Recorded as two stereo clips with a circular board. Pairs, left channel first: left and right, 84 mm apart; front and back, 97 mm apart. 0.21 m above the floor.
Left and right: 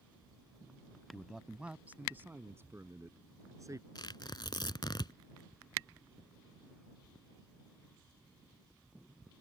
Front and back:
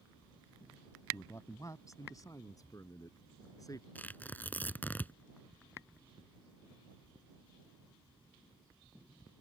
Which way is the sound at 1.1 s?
Straight ahead.